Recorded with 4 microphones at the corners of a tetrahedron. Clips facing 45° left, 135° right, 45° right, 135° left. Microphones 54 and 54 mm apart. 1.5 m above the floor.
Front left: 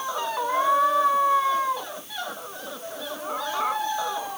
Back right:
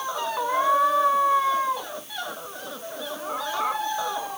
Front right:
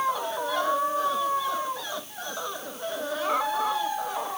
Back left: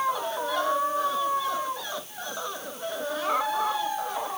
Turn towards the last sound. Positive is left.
No sound to turn to.